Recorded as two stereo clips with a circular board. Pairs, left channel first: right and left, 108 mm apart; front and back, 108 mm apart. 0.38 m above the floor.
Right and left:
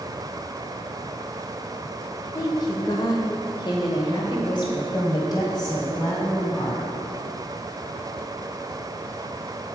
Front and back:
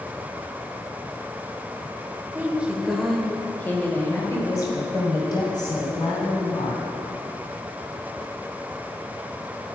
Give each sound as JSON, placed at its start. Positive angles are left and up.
{"t": 2.4, "sound": "a woman speaking", "azimuth_deg": -120, "distance_m": 1.1}